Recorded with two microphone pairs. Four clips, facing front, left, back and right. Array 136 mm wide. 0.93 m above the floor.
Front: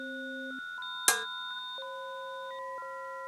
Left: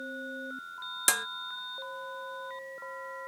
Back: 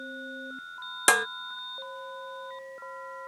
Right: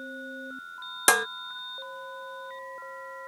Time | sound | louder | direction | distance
1.1 | dishes clattering | right 10 dB, back 9 dB | 120° right | ?